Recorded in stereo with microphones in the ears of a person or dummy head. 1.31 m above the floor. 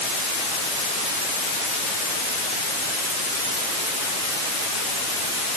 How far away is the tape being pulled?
No tape being pulled in this recording.